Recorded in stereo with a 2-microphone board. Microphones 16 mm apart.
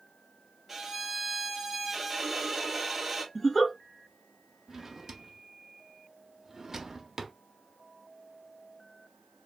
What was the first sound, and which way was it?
A violin, 10° right (ahead or behind).